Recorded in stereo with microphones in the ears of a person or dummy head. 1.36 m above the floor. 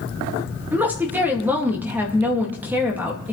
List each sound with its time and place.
0.7 s a woman speaking: 10° right (ahead or behind), 2 m